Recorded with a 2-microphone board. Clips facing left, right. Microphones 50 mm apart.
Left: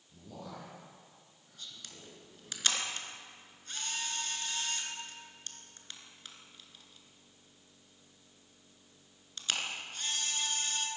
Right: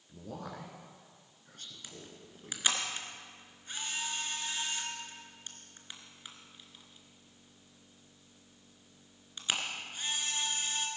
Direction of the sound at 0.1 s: 60° right (ahead or behind).